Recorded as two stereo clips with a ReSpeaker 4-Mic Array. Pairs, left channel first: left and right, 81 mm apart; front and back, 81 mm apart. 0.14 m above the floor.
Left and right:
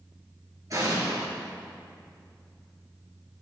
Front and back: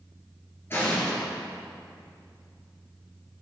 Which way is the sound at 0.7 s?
55° right.